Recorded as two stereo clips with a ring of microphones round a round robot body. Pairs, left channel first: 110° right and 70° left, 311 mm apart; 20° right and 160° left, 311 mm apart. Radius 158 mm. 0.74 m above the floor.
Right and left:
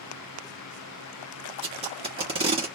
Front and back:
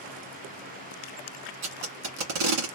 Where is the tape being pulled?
140° left, 1.8 m.